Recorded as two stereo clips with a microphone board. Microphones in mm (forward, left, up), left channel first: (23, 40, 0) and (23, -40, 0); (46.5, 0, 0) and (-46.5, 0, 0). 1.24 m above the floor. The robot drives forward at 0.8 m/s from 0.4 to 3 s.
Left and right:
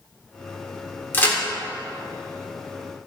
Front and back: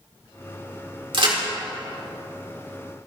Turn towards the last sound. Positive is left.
turn(degrees=165)